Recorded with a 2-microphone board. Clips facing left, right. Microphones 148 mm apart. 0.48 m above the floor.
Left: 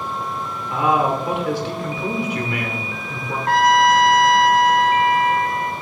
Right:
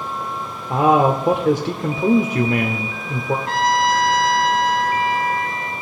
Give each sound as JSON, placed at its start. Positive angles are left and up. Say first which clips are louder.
{"t": 0.7, "sound": "a man speaking", "louder": "right 4 dB", "side_deg": -45, "distance_m": 1.0}
{"t": 3.5, "sound": "a trumpet", "louder": "left 6 dB", "side_deg": 50, "distance_m": 0.9}